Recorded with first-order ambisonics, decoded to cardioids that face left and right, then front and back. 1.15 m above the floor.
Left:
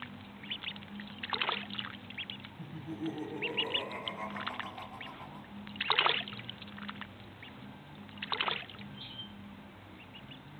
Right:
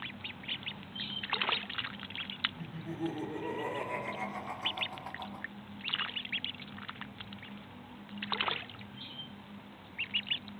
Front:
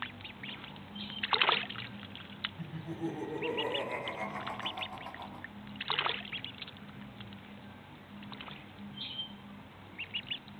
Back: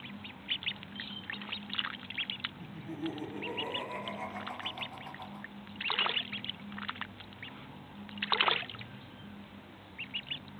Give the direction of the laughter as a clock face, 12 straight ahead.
1 o'clock.